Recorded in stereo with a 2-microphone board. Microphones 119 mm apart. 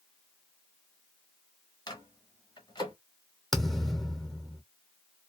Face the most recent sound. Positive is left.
turn(degrees=0)  # may be behind; listen again after turning